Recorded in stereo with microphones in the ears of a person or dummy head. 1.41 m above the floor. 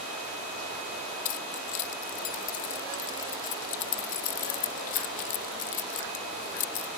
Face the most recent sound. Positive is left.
turn(degrees=40)  # may be behind; listen again after turning